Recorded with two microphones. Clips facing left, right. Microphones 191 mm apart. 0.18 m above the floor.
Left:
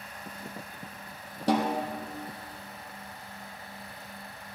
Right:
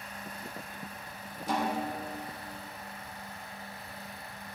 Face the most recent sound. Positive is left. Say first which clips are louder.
# left 5 dB
turn(degrees=80)